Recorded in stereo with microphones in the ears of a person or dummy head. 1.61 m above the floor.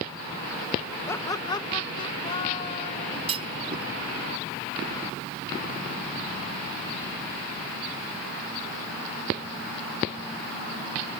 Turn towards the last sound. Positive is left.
turn(degrees=-35)  # may be behind; listen again after turning